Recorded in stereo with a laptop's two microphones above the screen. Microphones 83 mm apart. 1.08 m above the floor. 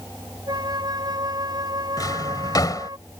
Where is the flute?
55° right (ahead or behind).